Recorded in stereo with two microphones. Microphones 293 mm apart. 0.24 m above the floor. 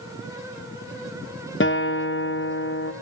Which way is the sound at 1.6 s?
40° left (ahead or behind).